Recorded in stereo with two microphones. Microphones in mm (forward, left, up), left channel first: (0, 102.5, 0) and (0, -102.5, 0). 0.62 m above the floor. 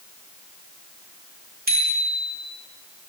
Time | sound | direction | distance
1.7 | a bicycle bell | 50° right (ahead or behind) | 6 m